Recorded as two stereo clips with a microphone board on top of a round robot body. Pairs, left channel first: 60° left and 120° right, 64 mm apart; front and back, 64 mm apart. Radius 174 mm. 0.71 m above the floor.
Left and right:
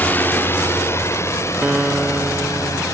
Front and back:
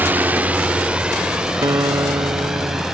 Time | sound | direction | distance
0.0 | a drone | 120° left | ?
1.6 | a guitar | 160° left | ?